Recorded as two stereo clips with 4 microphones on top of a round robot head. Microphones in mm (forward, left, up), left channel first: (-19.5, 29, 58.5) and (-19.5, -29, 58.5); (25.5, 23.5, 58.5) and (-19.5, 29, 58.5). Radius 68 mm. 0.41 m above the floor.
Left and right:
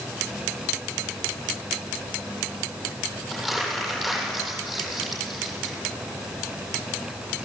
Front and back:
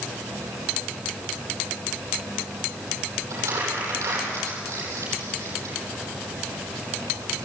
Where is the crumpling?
Straight behind, 9.5 m.